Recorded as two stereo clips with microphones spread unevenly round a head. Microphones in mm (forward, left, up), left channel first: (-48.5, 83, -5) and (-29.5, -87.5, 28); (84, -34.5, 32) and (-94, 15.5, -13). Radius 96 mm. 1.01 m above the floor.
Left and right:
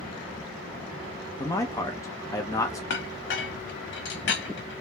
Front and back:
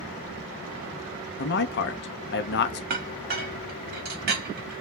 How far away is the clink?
About 1.0 m.